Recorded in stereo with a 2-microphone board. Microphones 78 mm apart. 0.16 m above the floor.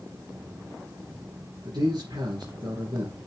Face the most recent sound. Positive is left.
turn(degrees=-60)  # may be behind; listen again after turning